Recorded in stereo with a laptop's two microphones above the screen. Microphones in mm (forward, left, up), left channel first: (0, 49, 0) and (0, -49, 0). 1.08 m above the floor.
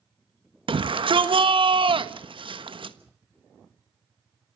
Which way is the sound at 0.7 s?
60° right (ahead or behind).